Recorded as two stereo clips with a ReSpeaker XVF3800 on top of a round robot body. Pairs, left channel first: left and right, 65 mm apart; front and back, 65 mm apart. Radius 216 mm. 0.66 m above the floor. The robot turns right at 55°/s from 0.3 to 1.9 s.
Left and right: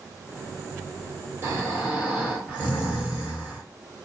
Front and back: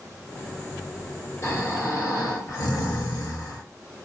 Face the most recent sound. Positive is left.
turn(degrees=-20)